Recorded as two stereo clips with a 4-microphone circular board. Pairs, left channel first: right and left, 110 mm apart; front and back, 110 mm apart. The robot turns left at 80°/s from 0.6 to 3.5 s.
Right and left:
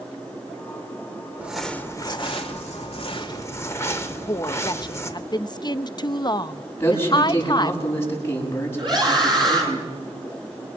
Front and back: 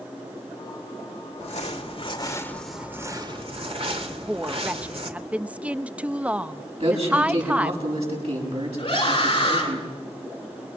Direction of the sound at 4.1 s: 110° right.